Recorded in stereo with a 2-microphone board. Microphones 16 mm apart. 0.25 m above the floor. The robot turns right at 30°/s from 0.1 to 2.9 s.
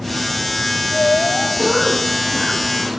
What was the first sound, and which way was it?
A cough, 170° right.